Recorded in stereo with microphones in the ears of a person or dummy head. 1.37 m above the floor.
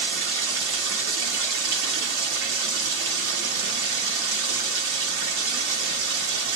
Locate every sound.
0.0 s running water: 70° right (ahead or behind), 1.0 m